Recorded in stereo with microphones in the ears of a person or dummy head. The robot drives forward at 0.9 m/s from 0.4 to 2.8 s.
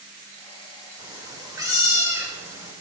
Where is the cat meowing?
15° right (ahead or behind), 2.5 m; by 2.7 s 10° right (ahead or behind), 4 m.